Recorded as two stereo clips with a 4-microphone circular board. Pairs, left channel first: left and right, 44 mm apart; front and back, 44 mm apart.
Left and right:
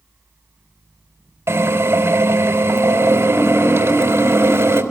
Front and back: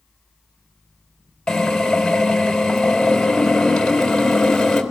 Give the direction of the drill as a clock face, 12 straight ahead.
3 o'clock.